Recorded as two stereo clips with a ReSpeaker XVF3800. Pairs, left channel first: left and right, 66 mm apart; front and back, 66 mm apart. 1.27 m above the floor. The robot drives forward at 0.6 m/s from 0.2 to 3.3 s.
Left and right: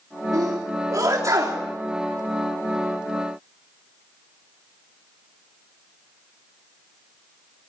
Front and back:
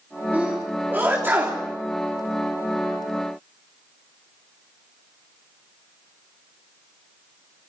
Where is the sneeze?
115° right, 3.5 m; by 1.6 s 125° right, 3.5 m.